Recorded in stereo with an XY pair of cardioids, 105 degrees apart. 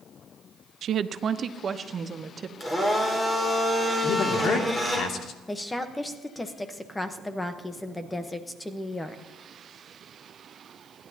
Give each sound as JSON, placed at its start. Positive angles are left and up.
{"t": 0.8, "sound": "a woman speaking", "azimuth_deg": -65, "distance_m": 0.6}
{"t": 2.6, "sound": "a blender", "azimuth_deg": 15, "distance_m": 5.0}
{"t": 4.0, "sound": "a man speaking", "azimuth_deg": 65, "distance_m": 2.5}
{"t": 5.5, "sound": "a woman speaking", "azimuth_deg": 15, "distance_m": 1.1}